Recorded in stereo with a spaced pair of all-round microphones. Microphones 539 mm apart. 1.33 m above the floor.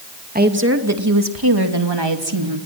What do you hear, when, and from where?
0.3 s a woman speaking: 15° right (ahead or behind), 2 m; by 2.6 s 60° right (ahead or behind), 3.5 m